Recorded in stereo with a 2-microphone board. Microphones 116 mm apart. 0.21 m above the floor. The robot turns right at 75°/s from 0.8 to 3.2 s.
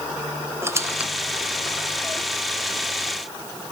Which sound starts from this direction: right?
A squeak, at 0.6 s.